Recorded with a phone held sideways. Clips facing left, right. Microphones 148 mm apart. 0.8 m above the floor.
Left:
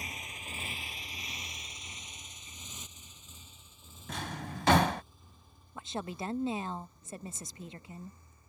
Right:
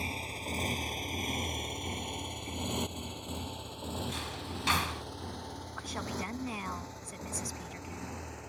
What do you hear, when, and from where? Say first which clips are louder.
0.0 s a motorcycle: right 7 dB; 30° right (ahead or behind); by 8.5 s 85° right
4.1 s a drawer: even; 65° left (ahead or behind)
5.8 s a woman speaking: left 1 dB; 25° left (ahead or behind)